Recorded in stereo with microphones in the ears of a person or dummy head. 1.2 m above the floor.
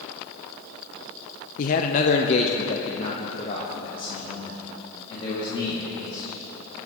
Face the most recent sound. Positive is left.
turn(degrees=25)  # may be behind; listen again after turning